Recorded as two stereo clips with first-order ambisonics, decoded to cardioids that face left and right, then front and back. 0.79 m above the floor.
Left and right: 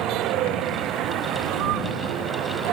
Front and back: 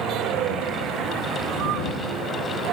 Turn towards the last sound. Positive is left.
turn(degrees=-135)